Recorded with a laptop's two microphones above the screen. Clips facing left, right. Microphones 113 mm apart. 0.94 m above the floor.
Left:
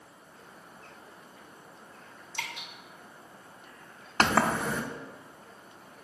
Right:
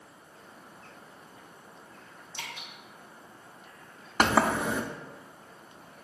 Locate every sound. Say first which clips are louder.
2.3 s dripping: left 3 dB; 75° left (ahead or behind), 2.5 m
4.2 s a sliding door: right 1 dB; 10° right (ahead or behind), 0.5 m